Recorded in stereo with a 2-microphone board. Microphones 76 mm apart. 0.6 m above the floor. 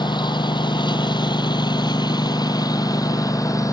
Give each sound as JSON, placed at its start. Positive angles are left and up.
{"t": 0.0, "sound": "a lawn mower", "side_deg": 80}